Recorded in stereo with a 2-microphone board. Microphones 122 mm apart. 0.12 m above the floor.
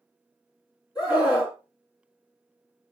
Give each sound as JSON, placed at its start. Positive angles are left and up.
{"t": 0.9, "sound": "a scream", "side_deg": 35, "distance_m": 2.0}